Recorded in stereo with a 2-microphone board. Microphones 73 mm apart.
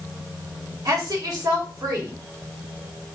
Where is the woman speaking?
60° right (ahead or behind), 3 m.